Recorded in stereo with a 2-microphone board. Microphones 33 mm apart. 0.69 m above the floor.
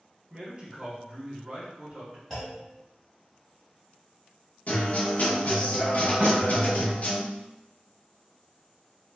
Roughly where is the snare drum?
Centre.